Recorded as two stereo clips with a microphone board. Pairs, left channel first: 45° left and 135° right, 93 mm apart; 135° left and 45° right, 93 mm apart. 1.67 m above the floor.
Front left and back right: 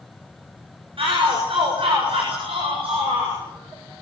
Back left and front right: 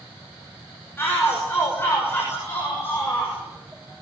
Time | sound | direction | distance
1.0 | a shout | 160° right | 6.5 m